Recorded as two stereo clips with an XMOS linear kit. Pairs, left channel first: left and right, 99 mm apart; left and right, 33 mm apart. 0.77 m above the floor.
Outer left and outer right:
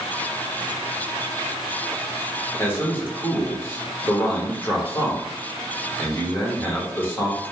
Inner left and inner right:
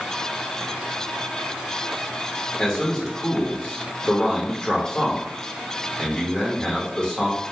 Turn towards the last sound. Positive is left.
turn(degrees=20)  # may be behind; listen again after turning